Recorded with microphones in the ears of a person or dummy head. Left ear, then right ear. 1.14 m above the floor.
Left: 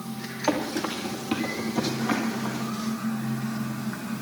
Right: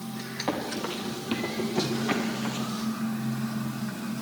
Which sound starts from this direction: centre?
Running footsteps, at 0.5 s.